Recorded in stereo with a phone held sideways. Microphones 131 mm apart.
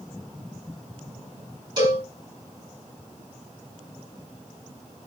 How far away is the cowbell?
About 3 m.